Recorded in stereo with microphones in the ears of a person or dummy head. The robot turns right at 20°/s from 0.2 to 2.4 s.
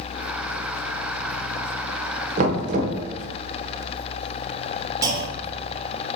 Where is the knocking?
40° right (ahead or behind), 0.7 m.